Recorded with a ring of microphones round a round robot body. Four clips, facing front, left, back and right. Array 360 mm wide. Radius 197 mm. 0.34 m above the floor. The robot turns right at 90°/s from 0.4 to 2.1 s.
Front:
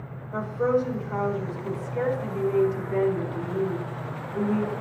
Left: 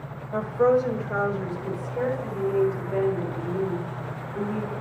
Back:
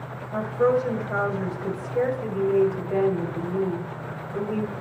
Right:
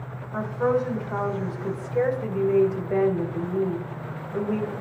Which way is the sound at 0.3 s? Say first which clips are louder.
Left 3 dB, back 2 dB; 85° left.